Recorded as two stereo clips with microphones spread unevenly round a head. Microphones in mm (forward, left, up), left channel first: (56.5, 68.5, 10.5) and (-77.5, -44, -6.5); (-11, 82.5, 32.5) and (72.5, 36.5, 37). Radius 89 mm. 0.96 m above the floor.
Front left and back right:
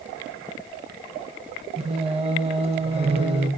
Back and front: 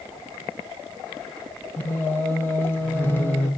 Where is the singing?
160° right, 1.0 m.